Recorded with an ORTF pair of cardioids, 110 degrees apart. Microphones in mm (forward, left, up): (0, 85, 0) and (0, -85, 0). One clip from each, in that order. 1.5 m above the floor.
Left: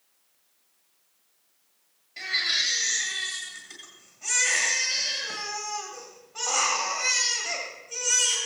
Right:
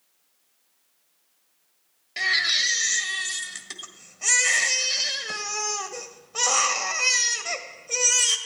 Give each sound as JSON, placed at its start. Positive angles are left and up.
{"t": 2.2, "sound": "a baby crying", "azimuth_deg": -60, "distance_m": 1.7}